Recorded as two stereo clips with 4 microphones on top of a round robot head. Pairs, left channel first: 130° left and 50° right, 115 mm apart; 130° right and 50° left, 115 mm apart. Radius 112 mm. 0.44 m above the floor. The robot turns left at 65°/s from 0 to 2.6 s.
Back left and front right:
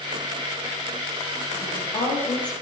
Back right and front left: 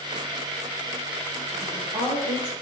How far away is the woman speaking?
About 7.5 m.